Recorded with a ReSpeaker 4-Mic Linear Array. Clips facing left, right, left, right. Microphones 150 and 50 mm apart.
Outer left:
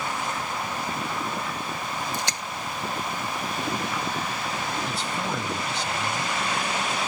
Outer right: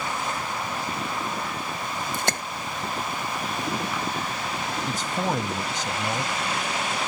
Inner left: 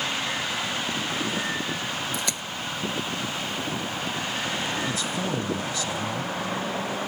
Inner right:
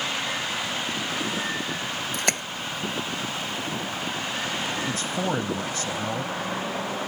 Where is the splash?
55° right (ahead or behind).